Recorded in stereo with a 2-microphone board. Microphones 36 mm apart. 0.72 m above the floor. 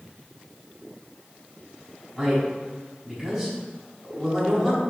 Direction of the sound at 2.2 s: 5° right (ahead or behind).